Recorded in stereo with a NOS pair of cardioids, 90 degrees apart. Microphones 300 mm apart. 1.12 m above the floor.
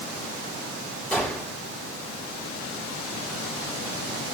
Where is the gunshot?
5° left, 6 m.